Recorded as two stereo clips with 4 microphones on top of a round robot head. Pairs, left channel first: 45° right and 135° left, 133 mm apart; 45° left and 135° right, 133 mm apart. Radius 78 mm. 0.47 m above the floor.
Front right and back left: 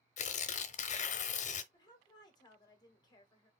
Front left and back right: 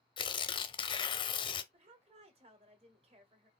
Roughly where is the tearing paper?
Ahead.